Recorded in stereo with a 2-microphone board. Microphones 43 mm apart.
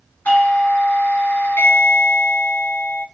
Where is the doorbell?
45° left (ahead or behind), 2.5 m.